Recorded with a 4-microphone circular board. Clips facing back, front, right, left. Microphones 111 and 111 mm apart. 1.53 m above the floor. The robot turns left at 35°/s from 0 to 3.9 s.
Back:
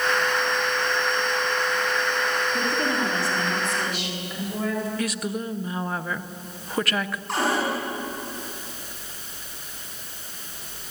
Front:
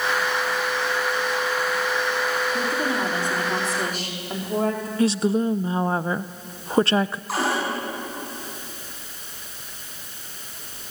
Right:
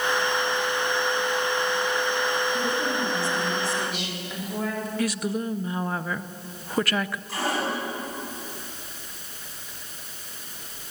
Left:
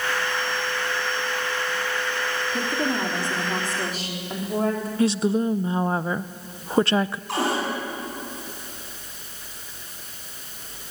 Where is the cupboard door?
85° left, 10 m.